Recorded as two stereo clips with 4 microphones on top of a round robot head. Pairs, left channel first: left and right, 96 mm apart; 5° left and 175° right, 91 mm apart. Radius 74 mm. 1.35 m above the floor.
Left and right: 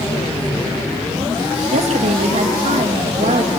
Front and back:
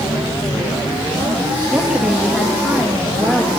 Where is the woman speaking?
90° right, 1.8 m.